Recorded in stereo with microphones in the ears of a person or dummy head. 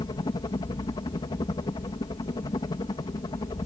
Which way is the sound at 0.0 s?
20° left (ahead or behind).